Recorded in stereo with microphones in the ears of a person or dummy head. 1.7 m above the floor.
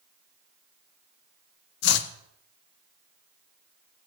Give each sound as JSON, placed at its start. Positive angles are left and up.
{"t": 1.8, "sound": "chopping", "side_deg": 65, "distance_m": 1.1}